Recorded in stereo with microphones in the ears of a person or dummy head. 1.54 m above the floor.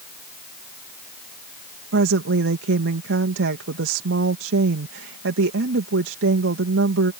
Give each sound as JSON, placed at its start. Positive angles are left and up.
{"t": 1.9, "sound": "a woman speaking", "side_deg": -85}